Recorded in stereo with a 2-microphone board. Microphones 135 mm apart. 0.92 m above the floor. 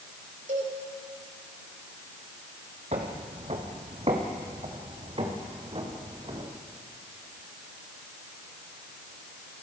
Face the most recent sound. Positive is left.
turn(degrees=-40)  # may be behind; listen again after turning